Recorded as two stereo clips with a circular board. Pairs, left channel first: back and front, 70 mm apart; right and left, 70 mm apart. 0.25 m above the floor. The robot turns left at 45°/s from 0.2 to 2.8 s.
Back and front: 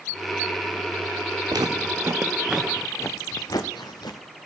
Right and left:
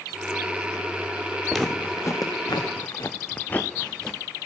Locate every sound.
1.5 s footsteps: straight ahead, 2.0 m; by 4.2 s 175° right, 1.9 m